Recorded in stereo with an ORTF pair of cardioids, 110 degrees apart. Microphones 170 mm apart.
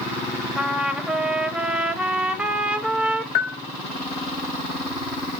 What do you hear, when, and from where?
0.6 s a trumpet: 5° right, 0.7 m
3.4 s a bell: 65° left, 0.6 m